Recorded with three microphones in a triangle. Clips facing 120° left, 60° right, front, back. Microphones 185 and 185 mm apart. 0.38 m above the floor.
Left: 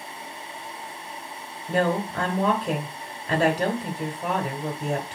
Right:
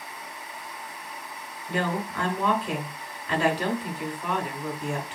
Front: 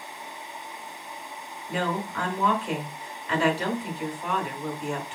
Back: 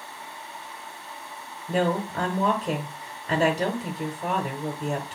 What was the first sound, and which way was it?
A woman speaking, 150° left.